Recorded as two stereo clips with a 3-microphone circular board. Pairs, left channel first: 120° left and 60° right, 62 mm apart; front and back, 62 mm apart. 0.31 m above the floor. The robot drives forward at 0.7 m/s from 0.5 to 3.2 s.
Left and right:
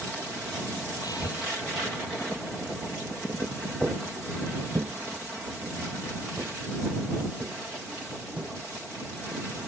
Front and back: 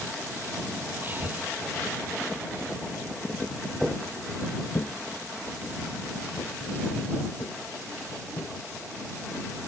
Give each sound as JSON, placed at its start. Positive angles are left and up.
{"t": 1.0, "sound": "breathing", "azimuth_deg": 120}
{"t": 3.8, "sound": "footsteps", "azimuth_deg": -110}